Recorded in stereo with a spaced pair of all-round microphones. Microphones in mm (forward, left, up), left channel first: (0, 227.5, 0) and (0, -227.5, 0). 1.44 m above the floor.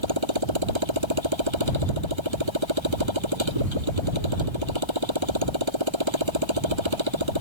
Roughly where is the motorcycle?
Right.